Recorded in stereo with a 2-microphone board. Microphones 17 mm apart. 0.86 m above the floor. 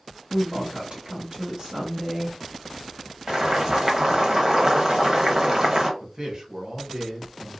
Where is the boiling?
35° right (ahead or behind), 0.9 m.